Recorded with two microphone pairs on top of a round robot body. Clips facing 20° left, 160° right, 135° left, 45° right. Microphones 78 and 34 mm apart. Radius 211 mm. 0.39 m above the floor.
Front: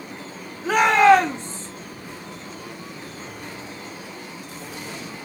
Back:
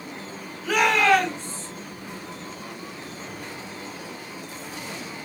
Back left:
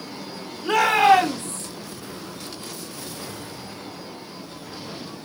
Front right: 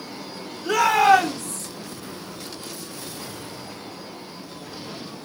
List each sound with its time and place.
0.6 s a shout: 75° left, 3.5 m